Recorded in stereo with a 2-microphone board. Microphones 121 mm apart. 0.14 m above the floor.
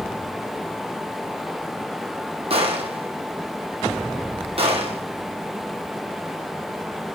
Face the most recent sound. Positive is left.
turn(degrees=-55)  # may be behind; listen again after turning